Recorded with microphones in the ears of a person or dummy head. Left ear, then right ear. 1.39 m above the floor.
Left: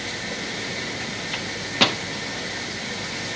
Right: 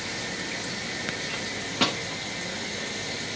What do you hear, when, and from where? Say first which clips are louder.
1.3 s a microwave: left 8 dB; 10° left (ahead or behind), 0.6 m